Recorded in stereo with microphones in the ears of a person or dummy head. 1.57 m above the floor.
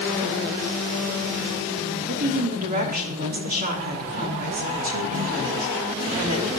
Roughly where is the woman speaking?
Right.